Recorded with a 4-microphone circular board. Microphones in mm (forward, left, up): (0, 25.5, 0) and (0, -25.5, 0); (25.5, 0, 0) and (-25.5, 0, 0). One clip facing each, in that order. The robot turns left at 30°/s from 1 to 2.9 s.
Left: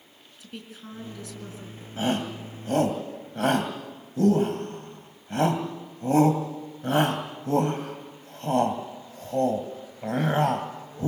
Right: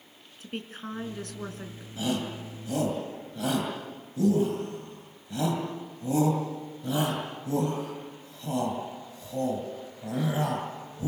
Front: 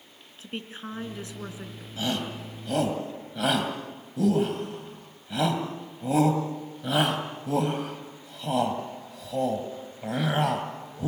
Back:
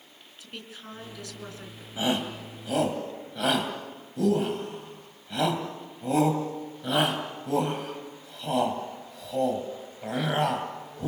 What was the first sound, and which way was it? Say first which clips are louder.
A woman speaking: right 4 dB, front 6 dB; 55° right.